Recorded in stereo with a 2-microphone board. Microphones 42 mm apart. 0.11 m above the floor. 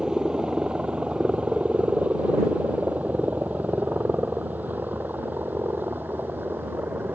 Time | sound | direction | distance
0.0 | a helicopter | 20° right (ahead or behind) | ?